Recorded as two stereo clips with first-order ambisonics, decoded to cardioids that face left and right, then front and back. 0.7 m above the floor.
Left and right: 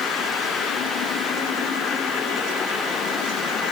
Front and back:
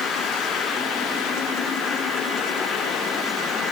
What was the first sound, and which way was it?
Only background noise.